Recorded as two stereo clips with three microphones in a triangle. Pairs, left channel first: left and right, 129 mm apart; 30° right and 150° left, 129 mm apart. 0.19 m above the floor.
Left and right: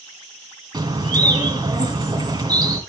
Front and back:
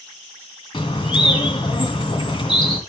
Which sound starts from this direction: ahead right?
A bird, at 0.7 s.